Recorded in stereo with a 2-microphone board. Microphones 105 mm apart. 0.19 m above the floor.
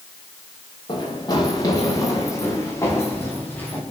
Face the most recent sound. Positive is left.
turn(degrees=15)  # may be behind; listen again after turning